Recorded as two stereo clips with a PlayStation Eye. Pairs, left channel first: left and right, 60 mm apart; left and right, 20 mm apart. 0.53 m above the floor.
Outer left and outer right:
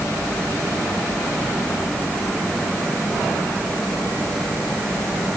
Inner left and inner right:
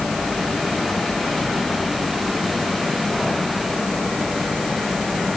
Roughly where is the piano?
No piano in this recording.